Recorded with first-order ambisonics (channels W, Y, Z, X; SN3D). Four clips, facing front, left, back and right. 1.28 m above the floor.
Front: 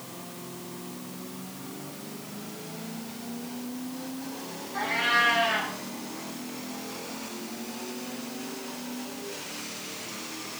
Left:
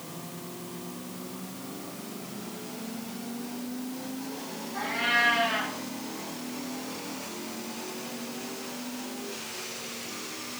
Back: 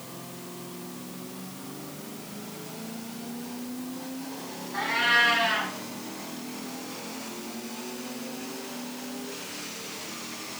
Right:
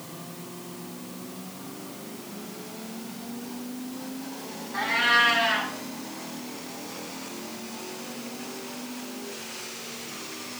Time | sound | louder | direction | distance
4.7 | a cat meowing | right 5 dB, back 2 dB | 125° right | 3 m